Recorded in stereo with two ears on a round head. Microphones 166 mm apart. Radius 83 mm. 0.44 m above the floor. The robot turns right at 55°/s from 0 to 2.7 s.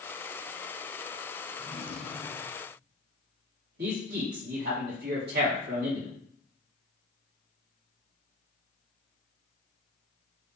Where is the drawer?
20° left, 2.5 m; by 2.6 s 80° left, 2.5 m.